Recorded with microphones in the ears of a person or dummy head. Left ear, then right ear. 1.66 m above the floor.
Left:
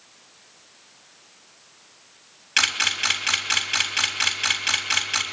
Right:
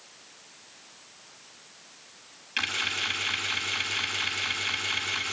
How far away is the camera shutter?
About 4 m.